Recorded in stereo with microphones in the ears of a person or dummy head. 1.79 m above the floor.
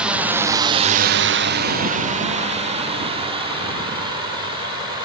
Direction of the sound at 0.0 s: 5° right (ahead or behind).